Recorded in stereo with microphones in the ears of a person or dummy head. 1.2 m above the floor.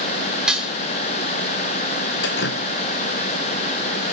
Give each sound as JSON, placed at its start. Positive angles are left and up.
{"t": 0.5, "sound": "dishes clattering", "side_deg": 0, "distance_m": 1.4}
{"t": 2.2, "sound": "dripping", "side_deg": 60, "distance_m": 1.1}